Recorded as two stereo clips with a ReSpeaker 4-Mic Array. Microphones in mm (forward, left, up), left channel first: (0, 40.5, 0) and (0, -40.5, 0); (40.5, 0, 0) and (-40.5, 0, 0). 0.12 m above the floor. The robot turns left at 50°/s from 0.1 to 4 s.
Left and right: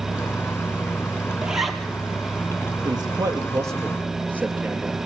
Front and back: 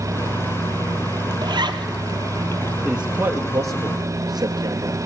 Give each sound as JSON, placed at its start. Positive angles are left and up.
{"t": 1.4, "sound": "a zipper", "azimuth_deg": -165, "distance_m": 1.4}
{"t": 2.9, "sound": "a man speaking", "azimuth_deg": -100, "distance_m": 3.0}